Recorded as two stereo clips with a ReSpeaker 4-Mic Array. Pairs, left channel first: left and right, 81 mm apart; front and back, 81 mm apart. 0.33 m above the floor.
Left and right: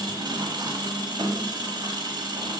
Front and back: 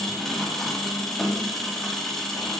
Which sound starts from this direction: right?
An engine running, at 0.0 s.